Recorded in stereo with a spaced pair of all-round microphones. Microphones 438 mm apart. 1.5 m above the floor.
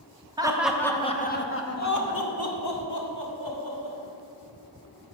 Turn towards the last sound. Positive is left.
turn(degrees=75)  # may be behind; listen again after turning